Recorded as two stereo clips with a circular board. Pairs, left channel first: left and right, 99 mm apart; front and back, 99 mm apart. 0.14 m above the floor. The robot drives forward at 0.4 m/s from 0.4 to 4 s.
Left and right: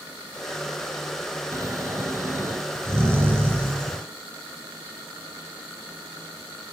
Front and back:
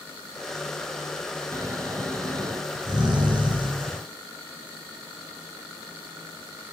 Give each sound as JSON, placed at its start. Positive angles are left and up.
{"t": 1.5, "sound": "snoring", "azimuth_deg": -140, "distance_m": 1.8}